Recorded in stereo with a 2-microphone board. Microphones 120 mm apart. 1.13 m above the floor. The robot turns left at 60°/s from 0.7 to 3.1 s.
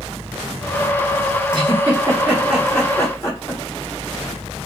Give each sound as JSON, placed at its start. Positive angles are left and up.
{"t": 1.5, "sound": "a giggle", "side_deg": -40, "distance_m": 0.9}